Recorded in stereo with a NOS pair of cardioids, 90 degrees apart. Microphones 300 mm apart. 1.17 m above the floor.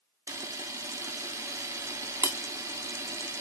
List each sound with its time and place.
0.3 s a camera shutter: 10° right, 0.7 m